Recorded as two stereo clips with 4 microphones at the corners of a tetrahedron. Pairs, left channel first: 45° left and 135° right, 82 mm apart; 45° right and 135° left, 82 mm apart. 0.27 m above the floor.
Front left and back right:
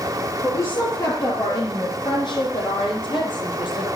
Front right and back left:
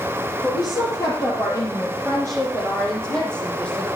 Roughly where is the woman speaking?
Ahead.